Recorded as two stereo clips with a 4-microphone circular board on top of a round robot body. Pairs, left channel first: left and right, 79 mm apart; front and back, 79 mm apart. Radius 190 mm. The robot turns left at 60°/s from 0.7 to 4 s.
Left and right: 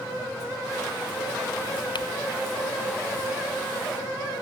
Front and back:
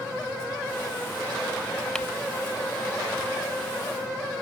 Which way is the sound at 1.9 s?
80° left.